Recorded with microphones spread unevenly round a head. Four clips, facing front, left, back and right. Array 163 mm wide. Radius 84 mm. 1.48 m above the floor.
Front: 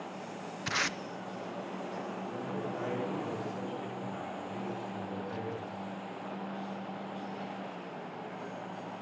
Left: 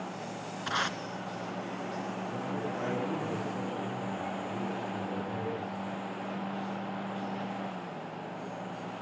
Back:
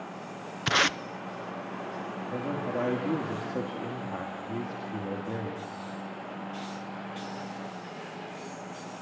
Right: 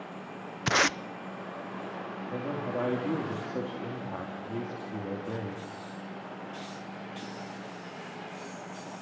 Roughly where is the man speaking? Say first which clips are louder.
Right 5 dB, back 8 dB; behind right.